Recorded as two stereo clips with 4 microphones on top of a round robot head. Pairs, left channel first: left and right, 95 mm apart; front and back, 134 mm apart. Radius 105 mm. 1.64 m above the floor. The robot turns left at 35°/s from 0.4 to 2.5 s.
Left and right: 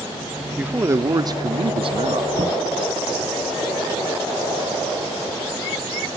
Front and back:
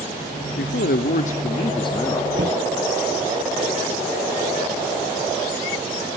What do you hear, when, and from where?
0.6 s a man speaking: 15° right, 0.9 m; by 2.2 s 75° right, 0.9 m
2.3 s knocking: 130° right, 1.1 m; by 2.7 s 135° right, 1.1 m